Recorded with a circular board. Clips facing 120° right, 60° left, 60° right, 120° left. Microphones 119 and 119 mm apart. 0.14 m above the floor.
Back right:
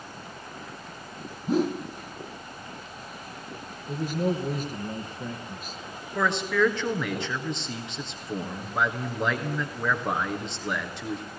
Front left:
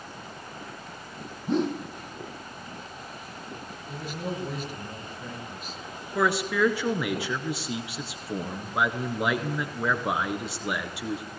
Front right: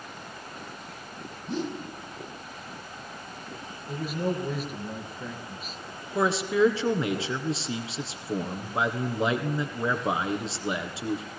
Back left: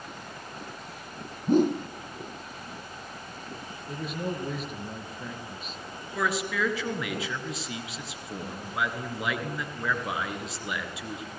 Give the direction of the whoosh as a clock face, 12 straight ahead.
7 o'clock.